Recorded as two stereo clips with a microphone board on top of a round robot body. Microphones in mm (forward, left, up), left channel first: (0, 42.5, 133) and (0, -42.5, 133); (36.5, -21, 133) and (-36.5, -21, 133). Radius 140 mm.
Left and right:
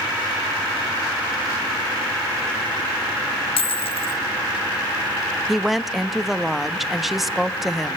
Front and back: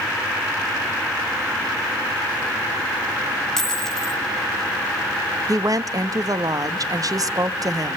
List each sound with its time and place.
3.6 s a dropped coin: 85° left, 1.3 m
5.5 s a woman speaking: straight behind, 1.6 m